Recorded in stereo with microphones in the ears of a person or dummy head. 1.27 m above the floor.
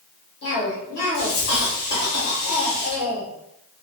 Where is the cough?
55° left (ahead or behind), 1.5 m.